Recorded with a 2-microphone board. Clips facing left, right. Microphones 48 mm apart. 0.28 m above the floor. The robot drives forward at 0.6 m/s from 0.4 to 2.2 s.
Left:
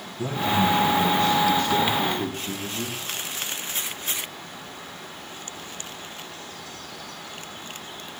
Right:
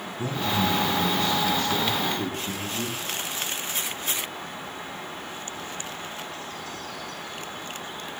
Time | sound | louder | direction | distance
0.2 | a man speaking | left 3 dB | 5° left (ahead or behind) | 1.9 m